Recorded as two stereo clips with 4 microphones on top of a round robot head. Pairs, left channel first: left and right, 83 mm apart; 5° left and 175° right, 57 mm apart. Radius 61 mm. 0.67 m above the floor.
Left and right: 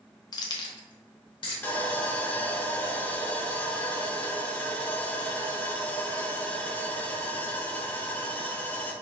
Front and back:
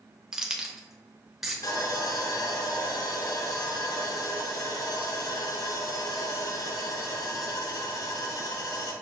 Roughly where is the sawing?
Ahead.